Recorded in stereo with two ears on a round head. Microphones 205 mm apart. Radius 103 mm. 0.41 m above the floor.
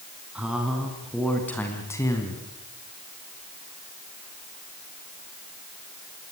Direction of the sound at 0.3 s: 5° right (ahead or behind).